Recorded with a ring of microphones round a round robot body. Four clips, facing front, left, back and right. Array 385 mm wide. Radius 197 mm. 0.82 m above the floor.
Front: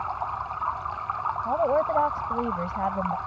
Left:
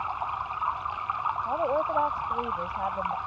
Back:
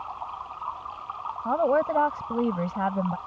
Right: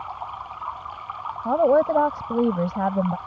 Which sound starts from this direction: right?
A woman speaking, at 1.4 s.